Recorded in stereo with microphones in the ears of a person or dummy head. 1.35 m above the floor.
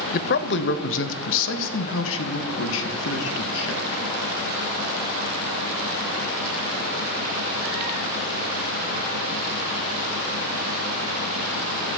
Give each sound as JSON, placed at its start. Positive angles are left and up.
{"t": 0.1, "sound": "a man speaking", "side_deg": 45, "distance_m": 0.6}